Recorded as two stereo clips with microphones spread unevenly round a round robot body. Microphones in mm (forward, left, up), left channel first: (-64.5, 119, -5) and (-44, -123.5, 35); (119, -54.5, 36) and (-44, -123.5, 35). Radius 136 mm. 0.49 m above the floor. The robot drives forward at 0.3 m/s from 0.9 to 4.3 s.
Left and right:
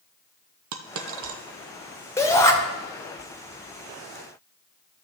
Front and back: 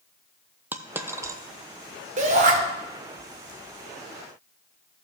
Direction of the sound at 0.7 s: 75° right.